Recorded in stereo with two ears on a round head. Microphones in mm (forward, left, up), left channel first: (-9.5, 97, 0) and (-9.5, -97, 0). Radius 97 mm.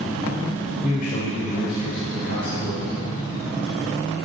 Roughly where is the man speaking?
Left.